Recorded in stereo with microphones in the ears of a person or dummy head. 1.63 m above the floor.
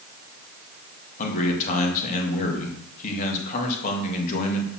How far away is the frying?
I don't hear frying.